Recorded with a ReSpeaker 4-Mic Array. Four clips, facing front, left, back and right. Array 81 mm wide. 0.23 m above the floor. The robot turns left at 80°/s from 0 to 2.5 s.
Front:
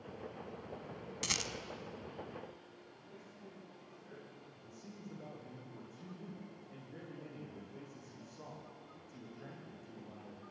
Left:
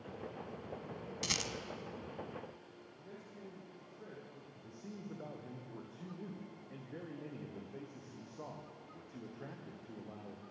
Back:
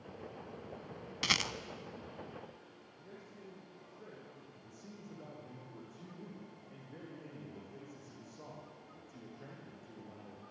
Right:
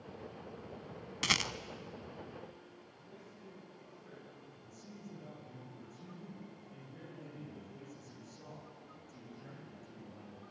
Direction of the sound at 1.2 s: 120° right.